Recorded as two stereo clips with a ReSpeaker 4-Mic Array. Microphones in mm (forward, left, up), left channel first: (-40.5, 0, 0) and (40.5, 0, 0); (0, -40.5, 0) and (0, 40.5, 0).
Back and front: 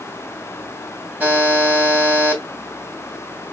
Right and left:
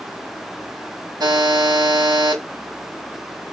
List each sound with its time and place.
1.2 s a buzzer: 70° left, 2.5 m